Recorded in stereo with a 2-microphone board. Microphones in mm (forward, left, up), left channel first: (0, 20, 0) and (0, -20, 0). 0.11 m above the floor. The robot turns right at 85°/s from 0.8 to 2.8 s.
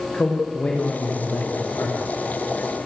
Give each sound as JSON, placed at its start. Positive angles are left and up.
{"t": 0.1, "sound": "a man speaking", "azimuth_deg": 30, "distance_m": 6.5}